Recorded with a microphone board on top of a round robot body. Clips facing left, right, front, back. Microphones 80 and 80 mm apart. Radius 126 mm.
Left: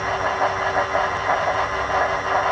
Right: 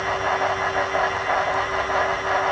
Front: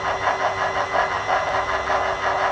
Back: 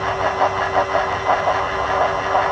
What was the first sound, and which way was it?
Only background noise.